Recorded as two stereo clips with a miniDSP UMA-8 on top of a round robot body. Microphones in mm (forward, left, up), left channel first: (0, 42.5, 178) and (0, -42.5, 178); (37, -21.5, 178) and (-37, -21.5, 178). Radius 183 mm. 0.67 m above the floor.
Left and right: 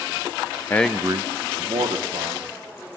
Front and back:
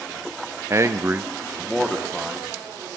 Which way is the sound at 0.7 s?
145° left.